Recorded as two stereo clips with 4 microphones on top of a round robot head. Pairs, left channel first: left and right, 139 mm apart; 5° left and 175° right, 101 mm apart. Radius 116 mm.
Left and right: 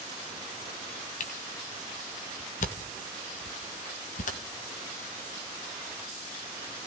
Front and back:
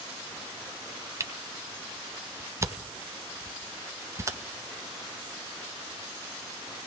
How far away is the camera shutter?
About 2 m.